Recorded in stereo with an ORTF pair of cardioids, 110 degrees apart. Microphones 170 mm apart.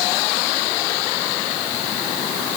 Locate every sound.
Only background noise.